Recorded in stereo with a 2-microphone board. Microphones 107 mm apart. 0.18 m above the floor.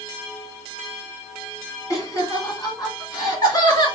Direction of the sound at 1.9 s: 35° left (ahead or behind).